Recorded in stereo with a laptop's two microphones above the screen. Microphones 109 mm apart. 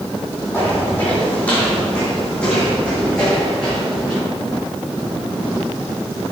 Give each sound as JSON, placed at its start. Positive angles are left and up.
{"t": 0.5, "sound": "footsteps", "side_deg": 20, "distance_m": 2.5}